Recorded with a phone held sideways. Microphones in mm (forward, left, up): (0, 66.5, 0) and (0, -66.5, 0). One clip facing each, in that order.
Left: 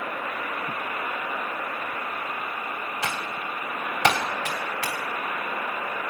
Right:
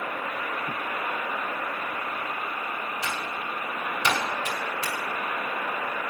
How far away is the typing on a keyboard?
About 3 m.